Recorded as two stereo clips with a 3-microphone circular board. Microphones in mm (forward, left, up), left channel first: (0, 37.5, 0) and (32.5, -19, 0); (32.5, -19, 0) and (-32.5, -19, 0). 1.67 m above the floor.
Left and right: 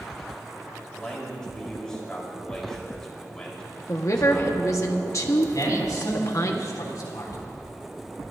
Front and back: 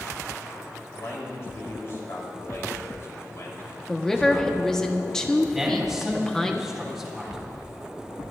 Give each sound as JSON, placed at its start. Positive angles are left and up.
{"t": 0.9, "sound": "a man speaking", "azimuth_deg": 40, "distance_m": 4.0}
{"t": 3.9, "sound": "a woman speaking", "azimuth_deg": 80, "distance_m": 1.3}
{"t": 5.5, "sound": "a man speaking", "azimuth_deg": 95, "distance_m": 3.5}